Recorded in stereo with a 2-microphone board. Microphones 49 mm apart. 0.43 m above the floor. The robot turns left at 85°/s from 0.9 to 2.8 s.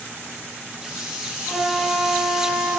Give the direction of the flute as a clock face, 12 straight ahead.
6 o'clock.